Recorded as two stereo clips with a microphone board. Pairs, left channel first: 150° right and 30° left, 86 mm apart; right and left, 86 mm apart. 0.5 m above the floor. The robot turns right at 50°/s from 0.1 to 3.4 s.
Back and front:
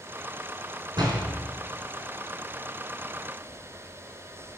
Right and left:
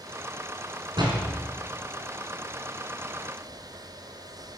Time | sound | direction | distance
1.0 | a door slam | 60° left | 4 m